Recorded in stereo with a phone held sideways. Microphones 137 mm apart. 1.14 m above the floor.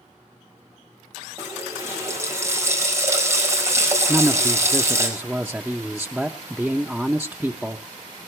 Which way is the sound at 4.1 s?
Centre (ahead or behind).